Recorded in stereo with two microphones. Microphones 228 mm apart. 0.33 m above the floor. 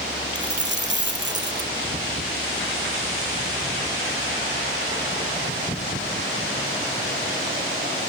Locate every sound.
0.3 s a dropped coin: 50° right (ahead or behind), 3.5 m